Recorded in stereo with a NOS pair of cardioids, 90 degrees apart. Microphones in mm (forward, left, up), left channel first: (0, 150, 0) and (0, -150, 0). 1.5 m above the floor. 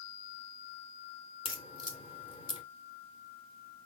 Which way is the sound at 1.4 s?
15° left.